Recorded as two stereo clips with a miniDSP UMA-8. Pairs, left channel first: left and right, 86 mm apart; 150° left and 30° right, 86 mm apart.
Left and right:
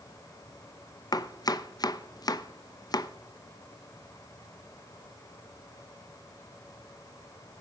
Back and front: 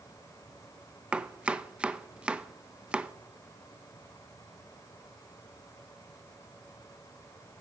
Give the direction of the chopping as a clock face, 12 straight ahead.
10 o'clock.